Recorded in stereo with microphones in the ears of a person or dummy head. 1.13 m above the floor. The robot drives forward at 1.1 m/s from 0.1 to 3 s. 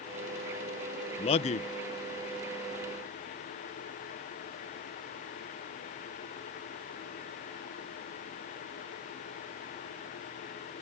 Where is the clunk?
No clunk in this recording.